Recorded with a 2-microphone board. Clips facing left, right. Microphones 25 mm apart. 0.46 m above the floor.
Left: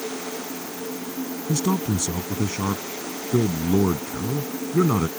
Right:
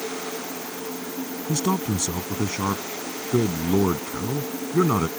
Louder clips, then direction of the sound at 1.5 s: Left 1 dB; 15° right (ahead or behind).